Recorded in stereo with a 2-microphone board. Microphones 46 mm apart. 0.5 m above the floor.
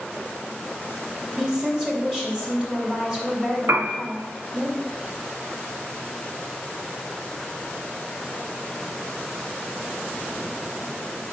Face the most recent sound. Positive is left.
turn(degrees=-80)